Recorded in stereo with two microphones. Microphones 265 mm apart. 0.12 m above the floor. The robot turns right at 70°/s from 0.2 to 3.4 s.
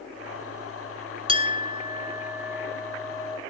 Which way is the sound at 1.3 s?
20° right (ahead or behind).